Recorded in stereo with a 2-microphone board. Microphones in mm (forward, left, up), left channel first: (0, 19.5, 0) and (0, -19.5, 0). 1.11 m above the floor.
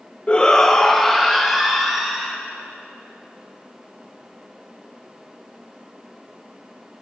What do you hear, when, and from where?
0.3 s a shout: 30° left (ahead or behind), 0.5 m; by 2.3 s 5° right (ahead or behind), 1.9 m